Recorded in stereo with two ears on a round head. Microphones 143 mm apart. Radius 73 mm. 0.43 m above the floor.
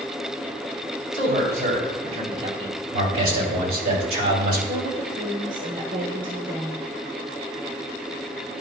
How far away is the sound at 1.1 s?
About 3.5 m.